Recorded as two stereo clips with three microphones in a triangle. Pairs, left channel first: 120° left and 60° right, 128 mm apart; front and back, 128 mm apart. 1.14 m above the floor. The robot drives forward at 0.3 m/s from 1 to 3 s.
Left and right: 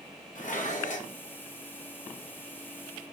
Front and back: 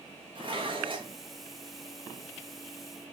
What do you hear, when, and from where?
0.3 s dishes clattering: 130° left, 0.8 m